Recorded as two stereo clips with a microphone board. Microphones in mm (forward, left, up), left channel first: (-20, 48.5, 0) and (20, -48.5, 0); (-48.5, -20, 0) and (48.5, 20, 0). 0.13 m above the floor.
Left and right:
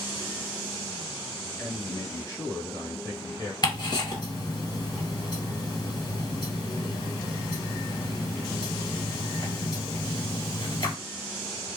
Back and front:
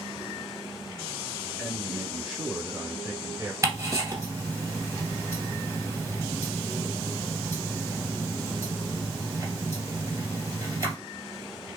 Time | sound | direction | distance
1.6 | a man speaking | 135° left | 1.5 m
3.6 | ticking | 75° left | 1.7 m